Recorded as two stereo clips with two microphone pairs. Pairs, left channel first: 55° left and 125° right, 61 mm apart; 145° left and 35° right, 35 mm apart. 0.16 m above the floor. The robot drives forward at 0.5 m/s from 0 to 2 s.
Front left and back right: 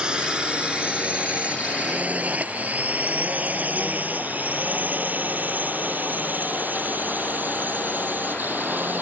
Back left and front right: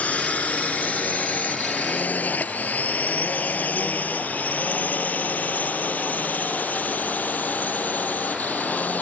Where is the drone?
160° left; by 9.0 s 175° left.